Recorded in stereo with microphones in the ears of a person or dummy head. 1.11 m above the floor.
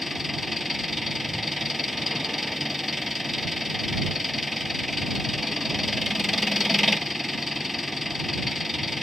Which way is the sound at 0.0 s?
Centre (ahead or behind).